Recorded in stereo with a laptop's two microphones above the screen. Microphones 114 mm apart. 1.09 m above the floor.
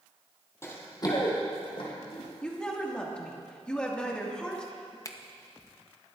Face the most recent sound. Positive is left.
turn(degrees=30)  # may be behind; listen again after turning